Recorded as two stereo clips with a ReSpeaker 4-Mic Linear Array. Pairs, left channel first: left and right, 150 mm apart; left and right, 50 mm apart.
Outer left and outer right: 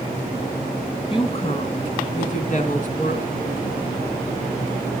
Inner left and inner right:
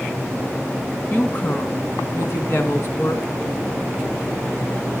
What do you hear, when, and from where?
1.1 s a woman speaking: 35° left (ahead or behind), 2.0 m; by 3.2 s 60° left (ahead or behind), 2.5 m